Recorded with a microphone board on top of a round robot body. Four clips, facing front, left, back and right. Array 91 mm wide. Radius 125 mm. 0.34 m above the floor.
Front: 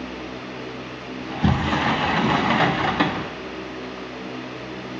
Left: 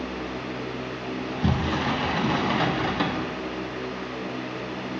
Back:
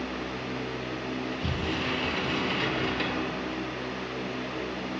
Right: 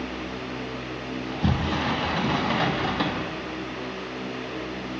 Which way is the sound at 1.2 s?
5° left.